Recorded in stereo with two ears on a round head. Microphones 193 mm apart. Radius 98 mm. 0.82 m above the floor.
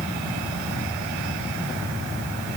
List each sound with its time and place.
Only background noise.